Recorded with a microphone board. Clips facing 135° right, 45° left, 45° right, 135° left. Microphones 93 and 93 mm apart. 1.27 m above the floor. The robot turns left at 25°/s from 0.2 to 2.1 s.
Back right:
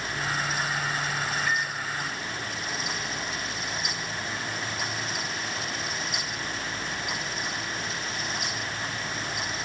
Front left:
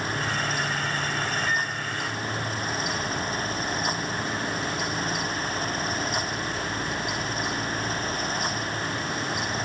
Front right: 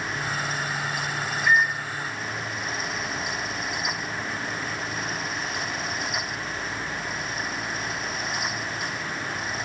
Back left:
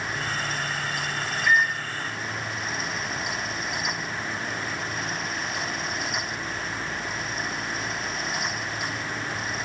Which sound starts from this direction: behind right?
A microwave, at 1.5 s.